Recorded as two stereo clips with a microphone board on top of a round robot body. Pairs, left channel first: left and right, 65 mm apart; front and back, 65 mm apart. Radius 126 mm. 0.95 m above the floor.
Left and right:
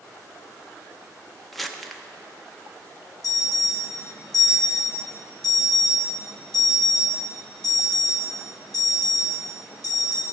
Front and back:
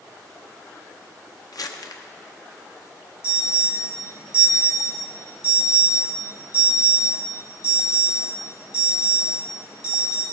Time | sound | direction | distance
1.5 | crumpling | straight ahead | 1.0 m
3.2 | an alarm | 105° left | 3 m